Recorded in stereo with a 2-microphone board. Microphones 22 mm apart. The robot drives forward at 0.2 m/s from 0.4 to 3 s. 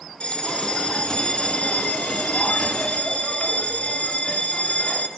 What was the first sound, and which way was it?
A bell, 55° left (ahead or behind).